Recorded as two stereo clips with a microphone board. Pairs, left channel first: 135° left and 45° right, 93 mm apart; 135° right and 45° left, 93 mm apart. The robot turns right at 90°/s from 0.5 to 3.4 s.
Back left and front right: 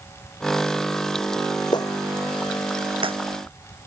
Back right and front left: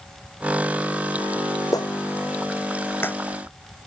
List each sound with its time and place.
1.7 s a clap: 175° left; by 3.1 s 60° right